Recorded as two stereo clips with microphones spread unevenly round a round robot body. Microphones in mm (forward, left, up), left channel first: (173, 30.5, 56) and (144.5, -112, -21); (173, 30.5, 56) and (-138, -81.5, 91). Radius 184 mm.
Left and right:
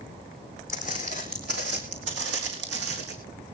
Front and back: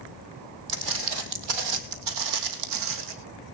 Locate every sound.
0.7 s footsteps: 165° left, 1.8 m; by 3.1 s 120° right, 3 m